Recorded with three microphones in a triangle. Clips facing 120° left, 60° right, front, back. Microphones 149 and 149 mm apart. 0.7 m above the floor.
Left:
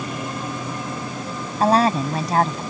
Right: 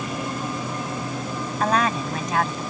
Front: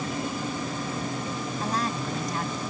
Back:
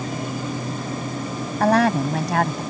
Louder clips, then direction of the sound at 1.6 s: Left 5 dB, back 14 dB; 175° left.